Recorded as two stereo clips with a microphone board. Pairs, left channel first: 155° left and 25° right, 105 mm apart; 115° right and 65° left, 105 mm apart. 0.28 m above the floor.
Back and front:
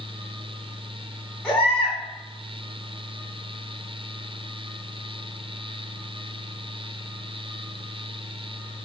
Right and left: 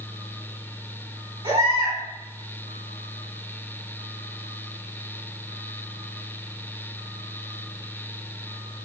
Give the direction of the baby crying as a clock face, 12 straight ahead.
10 o'clock.